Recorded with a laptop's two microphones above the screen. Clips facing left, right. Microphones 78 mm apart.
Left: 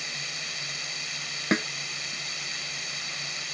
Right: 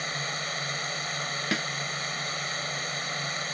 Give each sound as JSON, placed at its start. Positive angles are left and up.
{"t": 0.0, "sound": "a drone", "side_deg": -45}
{"t": 1.5, "sound": "a snare drum", "side_deg": 30}